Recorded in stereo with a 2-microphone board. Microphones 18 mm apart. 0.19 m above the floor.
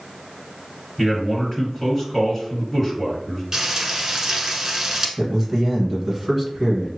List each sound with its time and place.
1.0 s a man speaking: 20° left (ahead or behind), 1.9 m
3.5 s frying: 30° right (ahead or behind), 0.8 m
5.2 s a man speaking: 15° right (ahead or behind), 1.4 m